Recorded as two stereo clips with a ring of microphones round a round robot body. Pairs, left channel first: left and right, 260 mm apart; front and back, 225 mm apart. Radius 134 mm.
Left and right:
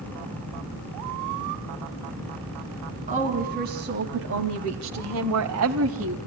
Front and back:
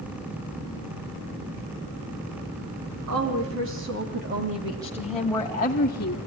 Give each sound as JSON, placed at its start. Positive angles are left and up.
{"t": 3.1, "sound": "a woman speaking", "azimuth_deg": -155, "distance_m": 3.5}